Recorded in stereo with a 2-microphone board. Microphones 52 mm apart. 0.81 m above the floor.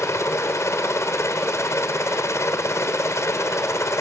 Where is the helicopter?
60° left (ahead or behind).